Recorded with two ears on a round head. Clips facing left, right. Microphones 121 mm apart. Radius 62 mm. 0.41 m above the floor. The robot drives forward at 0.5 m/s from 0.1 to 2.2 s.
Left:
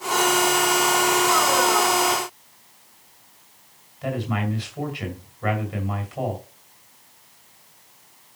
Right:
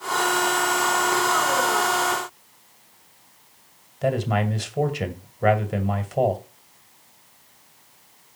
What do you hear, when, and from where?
4.0 s a man speaking: 55° right (ahead or behind), 2 m